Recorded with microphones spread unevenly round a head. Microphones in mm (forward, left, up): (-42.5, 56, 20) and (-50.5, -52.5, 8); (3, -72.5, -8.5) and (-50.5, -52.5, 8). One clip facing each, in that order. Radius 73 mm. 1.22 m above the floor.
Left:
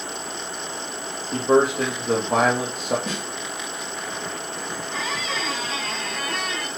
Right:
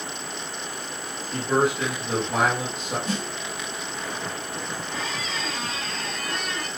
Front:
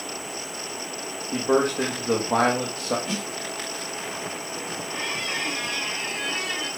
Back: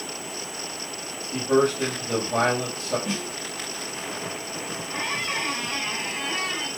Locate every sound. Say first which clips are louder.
1.3 s a man speaking: left 5 dB, back 1 dB; 25° left, 2 m
3.1 s a snare drum: right 1 dB, even; 75° left, 4 m
4.9 s a squeak: left 5 dB, back 2 dB; 80° left, 2.5 m